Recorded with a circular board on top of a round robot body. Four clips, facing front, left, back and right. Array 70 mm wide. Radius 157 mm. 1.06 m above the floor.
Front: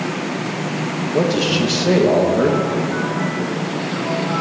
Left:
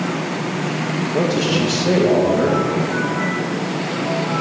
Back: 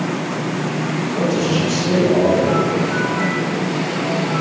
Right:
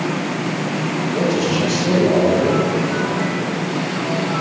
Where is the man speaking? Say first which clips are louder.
Even, front 2 dB; 25° left, 2.0 m.